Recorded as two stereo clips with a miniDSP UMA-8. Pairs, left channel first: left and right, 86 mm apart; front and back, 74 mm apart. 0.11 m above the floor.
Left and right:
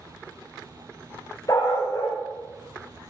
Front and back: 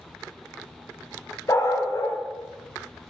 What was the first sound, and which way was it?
A dog barking, 45° left.